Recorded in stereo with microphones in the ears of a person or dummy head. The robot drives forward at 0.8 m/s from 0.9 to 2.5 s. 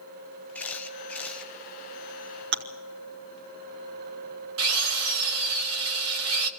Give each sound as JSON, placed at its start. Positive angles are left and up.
{"t": 0.6, "sound": "a camera shutter", "side_deg": 5, "distance_m": 0.7}
{"t": 2.5, "sound": "chewing", "side_deg": -60, "distance_m": 1.1}
{"t": 4.6, "sound": "a drill", "side_deg": -75, "distance_m": 1.1}